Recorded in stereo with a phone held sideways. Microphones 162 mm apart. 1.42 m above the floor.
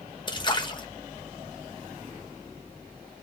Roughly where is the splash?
Left.